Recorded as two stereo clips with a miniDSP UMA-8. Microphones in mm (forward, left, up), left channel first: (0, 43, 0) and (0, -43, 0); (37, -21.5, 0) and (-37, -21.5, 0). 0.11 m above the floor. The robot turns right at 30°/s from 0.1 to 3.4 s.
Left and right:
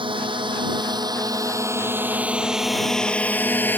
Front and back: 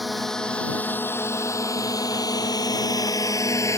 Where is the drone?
90° right; by 3.8 s 30° left.